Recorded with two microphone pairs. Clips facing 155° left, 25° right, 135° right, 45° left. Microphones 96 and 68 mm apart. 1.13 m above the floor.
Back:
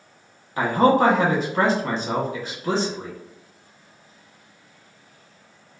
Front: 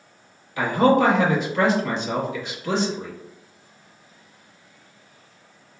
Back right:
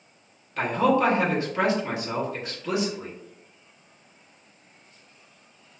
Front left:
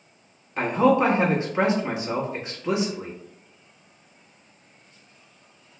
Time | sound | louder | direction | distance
0.6 | a man speaking | even, front left 2 dB | 110° left | 0.9 m